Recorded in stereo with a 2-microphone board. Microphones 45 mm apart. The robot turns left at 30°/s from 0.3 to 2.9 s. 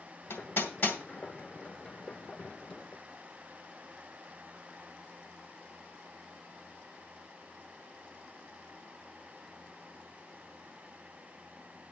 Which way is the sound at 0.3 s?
60° left (ahead or behind).